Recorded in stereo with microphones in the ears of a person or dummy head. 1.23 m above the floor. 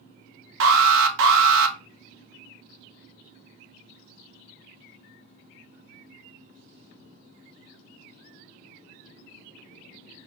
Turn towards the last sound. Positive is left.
turn(degrees=-65)  # may be behind; listen again after turning